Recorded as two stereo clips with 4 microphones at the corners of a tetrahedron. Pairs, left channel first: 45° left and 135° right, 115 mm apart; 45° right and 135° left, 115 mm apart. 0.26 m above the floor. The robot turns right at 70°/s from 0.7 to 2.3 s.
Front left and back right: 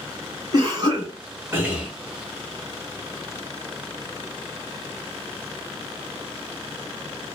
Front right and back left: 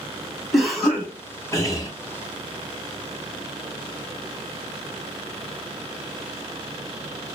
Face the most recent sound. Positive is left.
turn(degrees=-25)